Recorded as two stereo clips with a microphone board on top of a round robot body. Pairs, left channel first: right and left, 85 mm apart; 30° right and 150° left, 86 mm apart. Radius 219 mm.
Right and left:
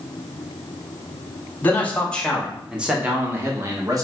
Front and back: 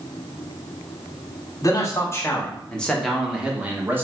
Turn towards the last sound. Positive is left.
turn(degrees=100)